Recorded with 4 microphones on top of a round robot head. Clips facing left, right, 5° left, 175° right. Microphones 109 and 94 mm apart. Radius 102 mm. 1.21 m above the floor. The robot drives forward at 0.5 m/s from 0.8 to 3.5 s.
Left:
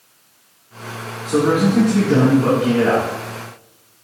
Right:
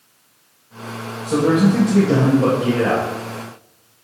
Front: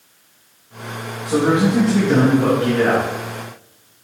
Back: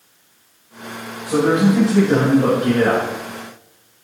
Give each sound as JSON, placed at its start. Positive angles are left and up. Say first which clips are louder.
{"t": 1.2, "sound": "a man speaking", "louder": "even, back 1 dB", "azimuth_deg": -85, "distance_m": 4.0}